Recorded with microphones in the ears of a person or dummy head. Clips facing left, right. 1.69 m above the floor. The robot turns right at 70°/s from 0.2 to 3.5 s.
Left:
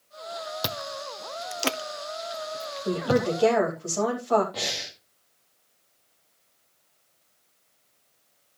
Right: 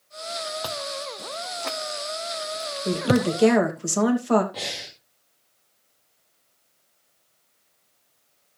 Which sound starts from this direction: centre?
Breathing, at 4.5 s.